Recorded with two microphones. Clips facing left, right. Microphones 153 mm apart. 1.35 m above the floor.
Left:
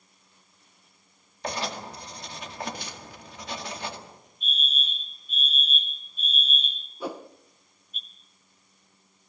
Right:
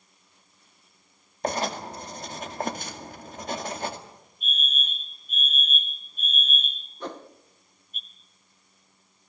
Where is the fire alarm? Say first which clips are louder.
Right 1 dB; 50° right (ahead or behind), 1.4 m.